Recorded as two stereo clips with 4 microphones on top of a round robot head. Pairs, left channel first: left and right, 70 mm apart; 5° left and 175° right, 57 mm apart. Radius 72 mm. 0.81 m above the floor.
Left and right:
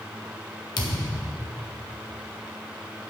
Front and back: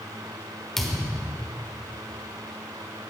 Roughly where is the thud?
Left.